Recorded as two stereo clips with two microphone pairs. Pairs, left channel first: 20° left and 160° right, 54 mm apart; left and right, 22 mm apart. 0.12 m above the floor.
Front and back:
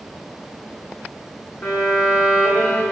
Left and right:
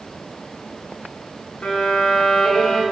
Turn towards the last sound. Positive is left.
turn(degrees=80)